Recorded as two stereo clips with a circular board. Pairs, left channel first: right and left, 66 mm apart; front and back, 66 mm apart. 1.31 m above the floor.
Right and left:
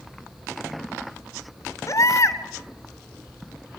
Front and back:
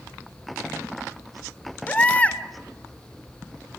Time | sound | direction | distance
1.9 | a baby crying | 65° right | 2.0 m